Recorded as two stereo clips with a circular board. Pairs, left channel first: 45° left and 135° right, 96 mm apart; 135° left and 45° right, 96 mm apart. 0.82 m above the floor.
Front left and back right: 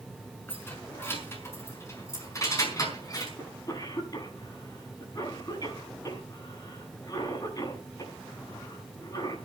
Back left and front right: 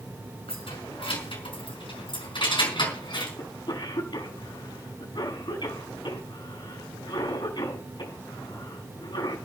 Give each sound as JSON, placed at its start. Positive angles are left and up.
{"t": 0.5, "sound": "keys jangling", "azimuth_deg": 115, "distance_m": 5.5}
{"t": 3.4, "sound": "a cough", "azimuth_deg": 95, "distance_m": 6.0}